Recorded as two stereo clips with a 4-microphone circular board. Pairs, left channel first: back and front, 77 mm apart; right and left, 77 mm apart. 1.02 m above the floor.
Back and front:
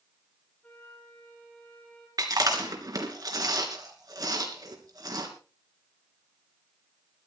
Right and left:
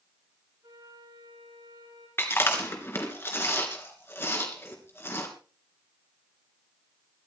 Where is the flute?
110° left, 5.5 m.